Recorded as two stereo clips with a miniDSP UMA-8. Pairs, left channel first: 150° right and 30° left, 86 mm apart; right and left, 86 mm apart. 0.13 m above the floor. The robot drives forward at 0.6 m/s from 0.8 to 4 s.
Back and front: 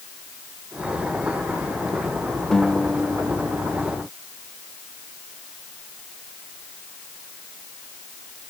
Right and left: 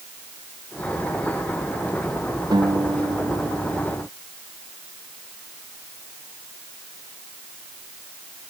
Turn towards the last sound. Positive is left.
turn(degrees=130)